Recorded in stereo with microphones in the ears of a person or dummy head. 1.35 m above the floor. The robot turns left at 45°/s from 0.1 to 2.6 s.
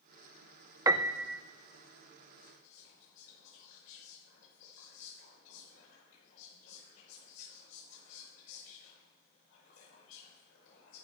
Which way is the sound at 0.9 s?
25° right (ahead or behind).